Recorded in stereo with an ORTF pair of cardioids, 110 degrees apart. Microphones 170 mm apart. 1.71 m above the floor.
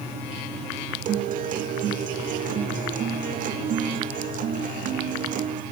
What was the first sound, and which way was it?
A guitar, 55° right.